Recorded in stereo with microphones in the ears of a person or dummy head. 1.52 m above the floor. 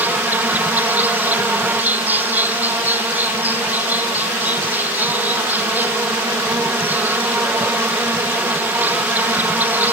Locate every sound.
0.0 s an insect: 10° right (ahead or behind)